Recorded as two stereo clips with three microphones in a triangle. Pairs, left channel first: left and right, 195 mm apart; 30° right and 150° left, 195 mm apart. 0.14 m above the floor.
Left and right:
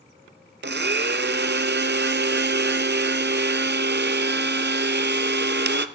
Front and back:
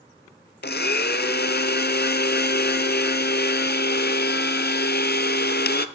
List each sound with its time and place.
0.6 s a blender: 65° right, 0.6 m